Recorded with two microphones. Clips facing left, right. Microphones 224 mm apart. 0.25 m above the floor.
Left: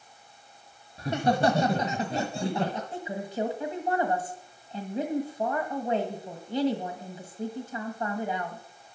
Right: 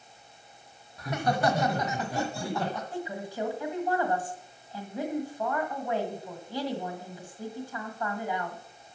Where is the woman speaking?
25° left (ahead or behind), 1.4 m.